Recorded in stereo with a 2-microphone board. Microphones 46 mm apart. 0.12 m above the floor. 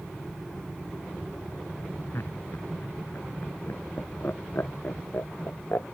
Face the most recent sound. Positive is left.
turn(degrees=60)  # may be behind; listen again after turning